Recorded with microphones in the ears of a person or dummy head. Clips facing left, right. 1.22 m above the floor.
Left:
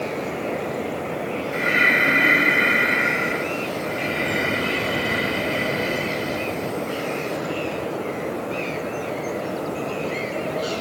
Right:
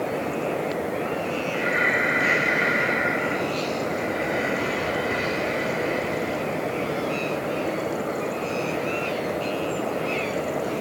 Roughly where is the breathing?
Left.